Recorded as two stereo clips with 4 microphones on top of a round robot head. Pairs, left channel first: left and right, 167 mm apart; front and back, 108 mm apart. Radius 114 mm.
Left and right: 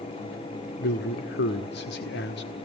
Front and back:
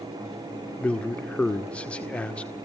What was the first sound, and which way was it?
A man speaking, 80° left.